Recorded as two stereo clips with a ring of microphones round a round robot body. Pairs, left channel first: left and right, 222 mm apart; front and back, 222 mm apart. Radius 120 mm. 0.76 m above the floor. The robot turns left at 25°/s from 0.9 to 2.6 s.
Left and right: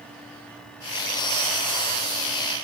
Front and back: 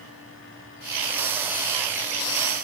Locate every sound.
Only background noise.